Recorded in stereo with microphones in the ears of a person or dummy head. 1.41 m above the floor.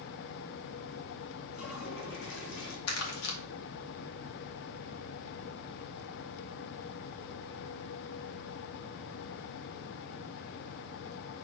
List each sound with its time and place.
1.5 s a toilet flushing: 65° left (ahead or behind), 1.9 m
2.9 s crumpling: 85° left, 2 m